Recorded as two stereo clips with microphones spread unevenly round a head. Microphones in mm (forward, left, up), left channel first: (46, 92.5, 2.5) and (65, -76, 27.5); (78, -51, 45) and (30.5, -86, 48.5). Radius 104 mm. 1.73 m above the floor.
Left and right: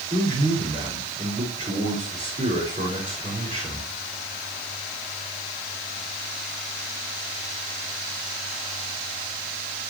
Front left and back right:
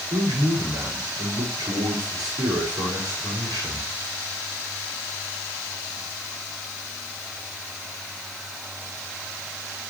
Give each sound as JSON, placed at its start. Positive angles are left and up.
{"t": 0.1, "sound": "a man speaking", "azimuth_deg": -145, "distance_m": 5.5}